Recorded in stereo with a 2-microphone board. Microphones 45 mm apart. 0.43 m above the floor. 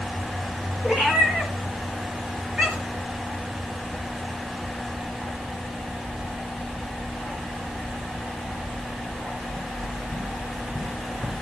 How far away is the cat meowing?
About 4.5 m.